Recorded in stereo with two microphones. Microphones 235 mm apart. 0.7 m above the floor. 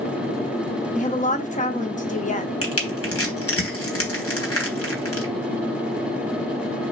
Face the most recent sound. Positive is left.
turn(degrees=80)